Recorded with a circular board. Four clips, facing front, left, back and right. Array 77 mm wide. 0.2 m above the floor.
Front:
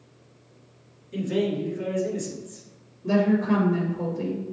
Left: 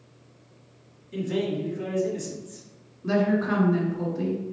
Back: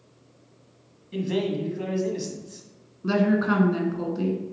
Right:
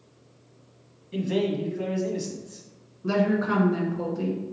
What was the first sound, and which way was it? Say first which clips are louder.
A man speaking: right 2 dB, front 1 dB; 150° right.